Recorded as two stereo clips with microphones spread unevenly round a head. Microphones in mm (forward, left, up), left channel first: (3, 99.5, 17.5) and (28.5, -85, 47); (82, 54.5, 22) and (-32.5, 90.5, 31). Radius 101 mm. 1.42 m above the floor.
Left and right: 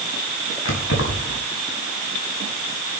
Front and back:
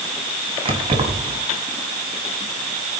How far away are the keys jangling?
About 6.5 m.